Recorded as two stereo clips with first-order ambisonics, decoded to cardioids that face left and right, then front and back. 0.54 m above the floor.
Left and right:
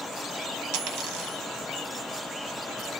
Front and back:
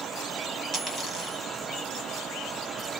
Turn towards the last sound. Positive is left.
turn(degrees=-100)